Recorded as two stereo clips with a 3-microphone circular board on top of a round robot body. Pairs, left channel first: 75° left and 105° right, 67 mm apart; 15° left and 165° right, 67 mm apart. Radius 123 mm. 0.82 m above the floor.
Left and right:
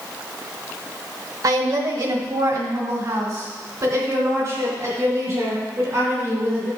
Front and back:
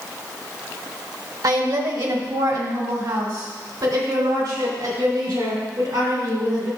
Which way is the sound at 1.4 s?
140° right.